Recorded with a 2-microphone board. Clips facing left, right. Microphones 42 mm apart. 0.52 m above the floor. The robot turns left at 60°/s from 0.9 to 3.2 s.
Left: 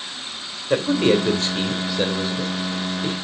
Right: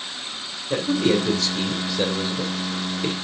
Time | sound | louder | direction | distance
0.7 | a man speaking | left 3 dB | 60° left (ahead or behind) | 2.5 m